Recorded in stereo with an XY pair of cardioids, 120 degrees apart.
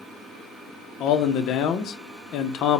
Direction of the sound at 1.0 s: 70° left.